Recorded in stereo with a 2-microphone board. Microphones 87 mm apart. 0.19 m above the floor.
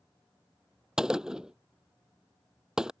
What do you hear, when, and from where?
1.0 s a gunshot: 5° right (ahead or behind)